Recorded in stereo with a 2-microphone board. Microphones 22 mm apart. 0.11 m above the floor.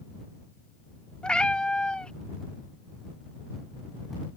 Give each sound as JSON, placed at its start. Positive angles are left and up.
{"t": 1.2, "sound": "a cat meowing", "side_deg": 45}